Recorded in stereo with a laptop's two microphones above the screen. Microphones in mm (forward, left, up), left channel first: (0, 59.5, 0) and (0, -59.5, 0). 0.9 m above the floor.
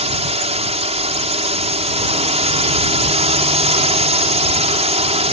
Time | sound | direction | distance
0.0 | a drone | 65° right (ahead or behind) | ?